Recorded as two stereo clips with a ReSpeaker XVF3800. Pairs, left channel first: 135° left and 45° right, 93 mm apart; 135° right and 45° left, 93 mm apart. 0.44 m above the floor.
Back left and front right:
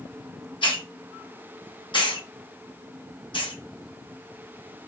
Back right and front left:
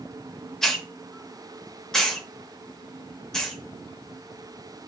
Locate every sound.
0.6 s a hiss: 140° left, 0.8 m